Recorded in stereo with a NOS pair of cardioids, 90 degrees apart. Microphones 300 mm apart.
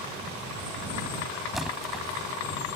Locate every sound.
1.5 s a splash: straight ahead